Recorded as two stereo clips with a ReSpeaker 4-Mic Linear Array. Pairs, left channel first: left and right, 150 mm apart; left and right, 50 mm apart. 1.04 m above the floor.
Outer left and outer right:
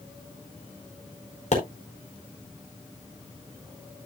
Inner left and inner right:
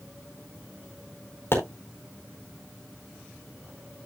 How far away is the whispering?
I don't hear whispering.